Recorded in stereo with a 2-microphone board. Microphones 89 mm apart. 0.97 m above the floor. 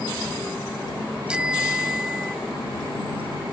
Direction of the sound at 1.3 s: 10° right (ahead or behind).